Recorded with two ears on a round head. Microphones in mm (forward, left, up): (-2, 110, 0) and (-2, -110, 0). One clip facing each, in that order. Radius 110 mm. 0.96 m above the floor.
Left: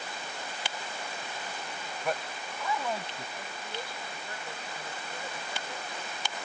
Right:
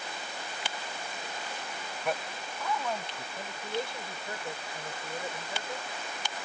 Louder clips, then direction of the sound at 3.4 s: Right 9 dB; 20° right (ahead or behind).